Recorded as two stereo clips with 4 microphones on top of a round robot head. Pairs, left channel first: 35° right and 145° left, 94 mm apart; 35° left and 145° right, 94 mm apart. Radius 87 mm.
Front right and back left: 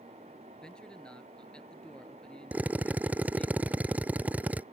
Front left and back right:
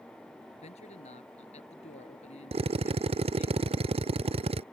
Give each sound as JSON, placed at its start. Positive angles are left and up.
{"t": 0.6, "sound": "a man speaking", "azimuth_deg": 45}
{"t": 2.5, "sound": "a drill", "azimuth_deg": -140}